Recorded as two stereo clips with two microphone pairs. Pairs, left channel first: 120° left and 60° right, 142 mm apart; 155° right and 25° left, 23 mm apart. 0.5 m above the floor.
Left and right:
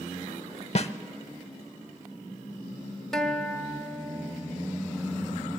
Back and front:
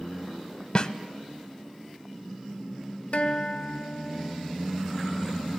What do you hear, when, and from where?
0.8 s a snare drum: 155° left, 0.6 m
3.1 s a guitar: 155° right, 0.7 m